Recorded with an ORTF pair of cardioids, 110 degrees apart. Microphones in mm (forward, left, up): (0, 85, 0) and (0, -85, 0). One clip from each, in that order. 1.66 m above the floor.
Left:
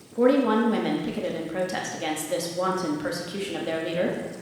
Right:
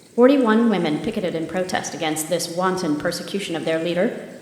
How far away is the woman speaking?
About 0.7 m.